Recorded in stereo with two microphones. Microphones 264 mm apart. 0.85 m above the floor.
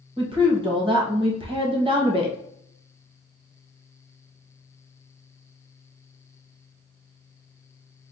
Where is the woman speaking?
20° right (ahead or behind), 0.9 m.